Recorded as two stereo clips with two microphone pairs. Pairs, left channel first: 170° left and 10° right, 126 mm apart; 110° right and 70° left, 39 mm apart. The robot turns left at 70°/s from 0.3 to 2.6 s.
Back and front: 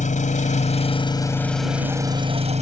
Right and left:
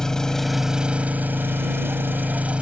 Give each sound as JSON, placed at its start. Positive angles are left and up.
{"t": 0.0, "sound": "an engine running", "azimuth_deg": 175}